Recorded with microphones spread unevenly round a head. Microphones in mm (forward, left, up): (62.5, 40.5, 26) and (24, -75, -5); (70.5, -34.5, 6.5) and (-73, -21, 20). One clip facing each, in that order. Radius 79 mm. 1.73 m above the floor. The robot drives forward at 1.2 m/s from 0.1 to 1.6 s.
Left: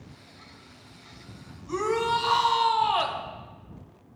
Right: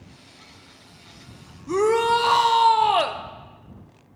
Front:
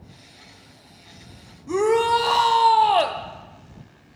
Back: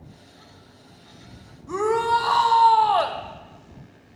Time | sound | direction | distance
1.7 | a shout | 75° right | 1.1 m